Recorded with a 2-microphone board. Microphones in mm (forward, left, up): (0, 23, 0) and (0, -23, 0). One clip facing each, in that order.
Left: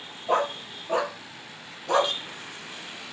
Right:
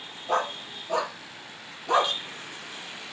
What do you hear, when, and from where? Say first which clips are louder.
0.3 s a dog barking: left 2 dB; 30° left (ahead or behind), 1.7 m; by 2.1 s 20° right (ahead or behind), 0.7 m